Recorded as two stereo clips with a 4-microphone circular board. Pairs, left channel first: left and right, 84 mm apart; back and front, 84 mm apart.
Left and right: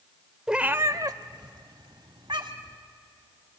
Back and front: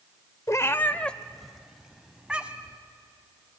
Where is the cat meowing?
170° right, 0.7 m; by 2.8 s 75° right, 2 m.